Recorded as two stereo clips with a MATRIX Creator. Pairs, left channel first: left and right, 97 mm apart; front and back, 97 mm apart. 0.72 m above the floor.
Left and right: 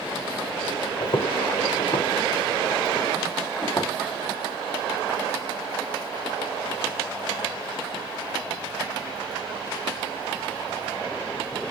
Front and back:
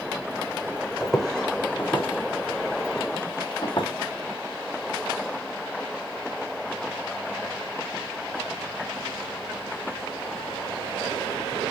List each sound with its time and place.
1.0 s footsteps: 90° left, 1.6 m; by 3.9 s 35° left, 1.9 m